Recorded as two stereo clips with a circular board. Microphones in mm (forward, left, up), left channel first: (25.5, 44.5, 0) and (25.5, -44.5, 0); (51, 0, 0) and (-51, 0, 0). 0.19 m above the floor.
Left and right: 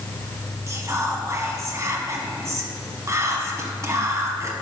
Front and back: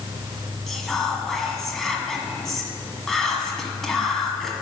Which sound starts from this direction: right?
Whispering, at 0.7 s.